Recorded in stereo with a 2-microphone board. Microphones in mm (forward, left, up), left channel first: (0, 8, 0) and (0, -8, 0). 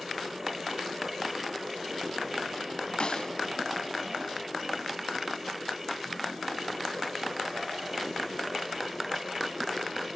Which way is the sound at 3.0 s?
65° left (ahead or behind).